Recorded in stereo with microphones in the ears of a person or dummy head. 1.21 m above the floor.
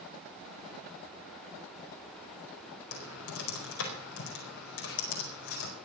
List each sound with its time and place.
2.9 s typing on a keyboard: 85° left, 4.5 m